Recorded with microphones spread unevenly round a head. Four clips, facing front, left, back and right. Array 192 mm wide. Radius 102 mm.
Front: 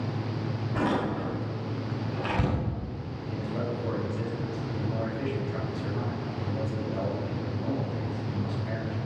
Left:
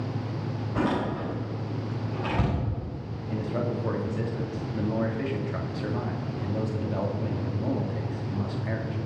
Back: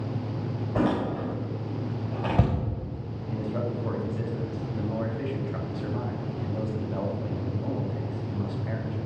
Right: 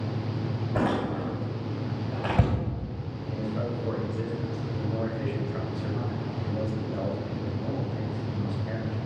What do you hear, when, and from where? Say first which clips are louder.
0.8 s a door slam: even, back 2 dB; 150° right, 4.5 m
3.3 s a man speaking: left 2 dB, back 2 dB; 85° left, 2.5 m